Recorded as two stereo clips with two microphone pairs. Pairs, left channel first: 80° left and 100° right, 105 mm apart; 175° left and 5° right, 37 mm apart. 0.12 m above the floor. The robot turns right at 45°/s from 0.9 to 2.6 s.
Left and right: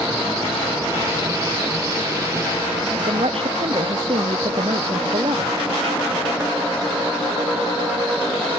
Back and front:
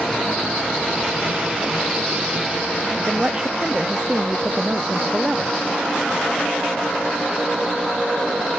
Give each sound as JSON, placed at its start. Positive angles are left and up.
{"t": 3.0, "sound": "a woman speaking", "azimuth_deg": -70}